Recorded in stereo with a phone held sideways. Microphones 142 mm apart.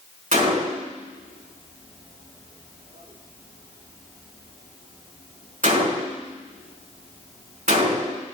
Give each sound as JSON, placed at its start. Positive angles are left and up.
{"t": 0.3, "sound": "a gunshot", "side_deg": -70, "distance_m": 3.5}